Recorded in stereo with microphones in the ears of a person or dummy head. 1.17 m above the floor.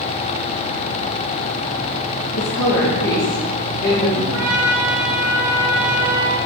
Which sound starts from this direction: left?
A woman speaking, at 2.4 s.